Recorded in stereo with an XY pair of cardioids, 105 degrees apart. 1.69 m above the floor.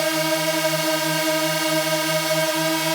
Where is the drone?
Straight ahead.